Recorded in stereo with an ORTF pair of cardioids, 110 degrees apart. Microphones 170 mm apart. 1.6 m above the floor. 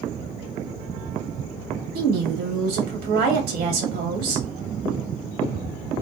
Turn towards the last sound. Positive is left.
turn(degrees=-70)